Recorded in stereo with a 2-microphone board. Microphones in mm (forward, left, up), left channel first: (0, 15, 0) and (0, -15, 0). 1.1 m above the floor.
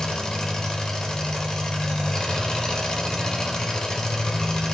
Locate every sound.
0.0 s an engine running: 25° left (ahead or behind), 1.4 m